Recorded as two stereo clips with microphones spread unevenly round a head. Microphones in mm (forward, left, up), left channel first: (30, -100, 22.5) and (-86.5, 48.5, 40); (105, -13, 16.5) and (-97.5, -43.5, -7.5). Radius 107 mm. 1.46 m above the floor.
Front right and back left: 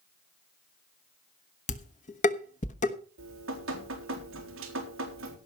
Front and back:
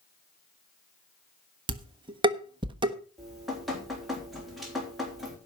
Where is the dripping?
100° left, 3.5 m.